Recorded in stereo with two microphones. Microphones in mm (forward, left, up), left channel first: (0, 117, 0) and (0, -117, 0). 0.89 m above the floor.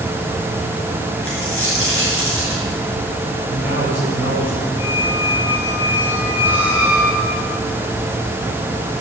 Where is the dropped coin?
80° left, 5 m.